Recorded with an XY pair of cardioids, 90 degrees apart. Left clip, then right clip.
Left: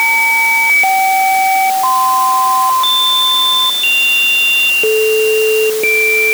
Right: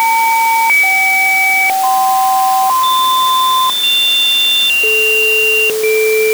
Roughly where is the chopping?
I don't hear chopping.